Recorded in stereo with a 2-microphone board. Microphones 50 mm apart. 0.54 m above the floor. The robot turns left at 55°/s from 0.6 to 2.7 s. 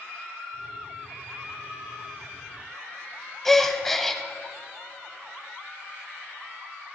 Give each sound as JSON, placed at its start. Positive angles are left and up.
{"t": 3.5, "sound": "a gasp", "side_deg": 5, "distance_m": 0.6}